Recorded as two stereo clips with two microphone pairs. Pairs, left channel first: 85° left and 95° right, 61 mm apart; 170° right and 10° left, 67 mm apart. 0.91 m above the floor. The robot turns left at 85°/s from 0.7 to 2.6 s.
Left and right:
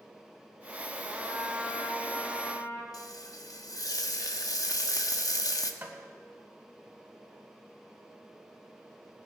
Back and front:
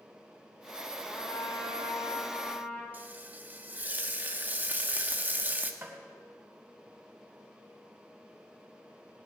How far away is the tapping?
About 3 m.